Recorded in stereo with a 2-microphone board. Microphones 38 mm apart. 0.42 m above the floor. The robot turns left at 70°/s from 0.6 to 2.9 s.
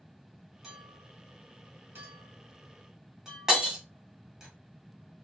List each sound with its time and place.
0.6 s a clink: 5° right (ahead or behind), 1.4 m; by 4.5 s 15° right (ahead or behind), 1.4 m
3.5 s breaking glass: 15° right (ahead or behind), 1.0 m